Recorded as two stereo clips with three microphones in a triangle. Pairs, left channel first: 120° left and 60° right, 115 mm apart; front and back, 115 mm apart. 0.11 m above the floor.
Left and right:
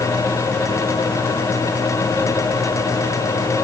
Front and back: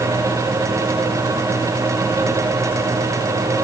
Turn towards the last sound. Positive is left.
No sound to turn to.